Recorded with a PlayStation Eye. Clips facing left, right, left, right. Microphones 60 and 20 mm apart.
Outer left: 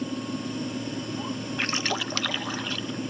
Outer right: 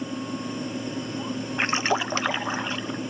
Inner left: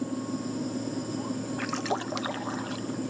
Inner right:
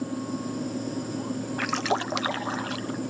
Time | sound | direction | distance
1.6 | a splash | 25° right (ahead or behind) | 0.5 m